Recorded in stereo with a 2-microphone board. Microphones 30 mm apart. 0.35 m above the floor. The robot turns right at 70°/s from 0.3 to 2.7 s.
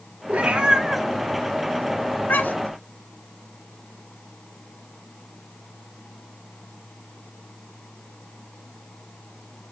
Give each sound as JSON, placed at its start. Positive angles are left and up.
{"t": 0.3, "sound": "a cat meowing", "side_deg": -50, "distance_m": 1.2}